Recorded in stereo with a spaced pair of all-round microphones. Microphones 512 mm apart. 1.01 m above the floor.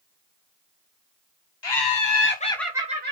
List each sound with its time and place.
1.6 s laughter: 60° left (ahead or behind), 0.6 m; by 3.1 s 20° right (ahead or behind), 0.7 m